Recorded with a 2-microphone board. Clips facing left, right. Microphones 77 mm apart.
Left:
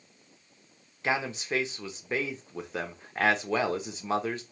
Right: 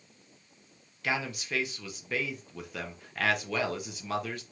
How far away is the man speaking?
About 0.6 m.